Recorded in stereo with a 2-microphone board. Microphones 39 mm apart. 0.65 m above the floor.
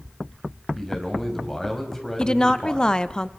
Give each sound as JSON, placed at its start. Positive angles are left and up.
{"t": 0.8, "sound": "a man speaking", "side_deg": 10, "distance_m": 3.5}
{"t": 2.2, "sound": "a woman speaking", "side_deg": 20, "distance_m": 0.6}